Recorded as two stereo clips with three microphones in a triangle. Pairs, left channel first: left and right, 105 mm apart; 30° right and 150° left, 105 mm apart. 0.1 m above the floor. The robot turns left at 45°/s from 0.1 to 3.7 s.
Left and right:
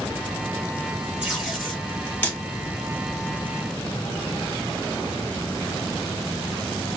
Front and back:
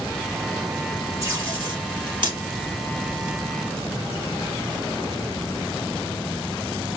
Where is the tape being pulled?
160° right, 2 m; by 2.4 s 145° left, 2 m.